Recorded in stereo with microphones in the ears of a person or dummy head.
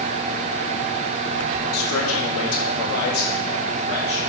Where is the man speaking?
85° left, 3 m; by 4.2 s 30° left (ahead or behind), 3 m.